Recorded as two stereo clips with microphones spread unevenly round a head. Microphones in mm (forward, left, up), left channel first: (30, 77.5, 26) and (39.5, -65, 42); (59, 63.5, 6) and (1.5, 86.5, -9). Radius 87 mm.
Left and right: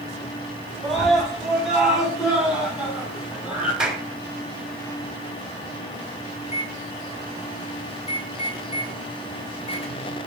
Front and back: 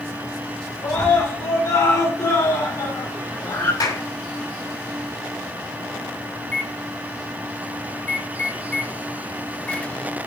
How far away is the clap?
About 6 m.